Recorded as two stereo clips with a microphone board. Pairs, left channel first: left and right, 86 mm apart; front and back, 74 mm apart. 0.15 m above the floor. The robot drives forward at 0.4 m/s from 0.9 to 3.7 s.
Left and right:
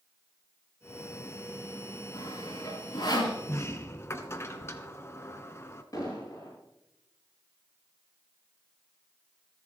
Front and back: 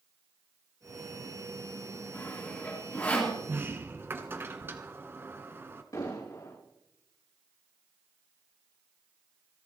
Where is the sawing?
60° left, 3.5 m; by 3.3 s 70° left, 3.5 m.